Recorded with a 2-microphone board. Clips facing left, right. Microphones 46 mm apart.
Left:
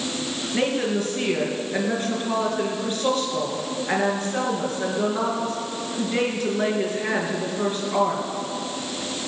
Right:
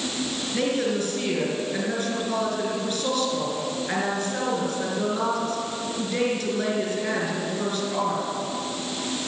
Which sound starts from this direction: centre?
A woman speaking, at 0.5 s.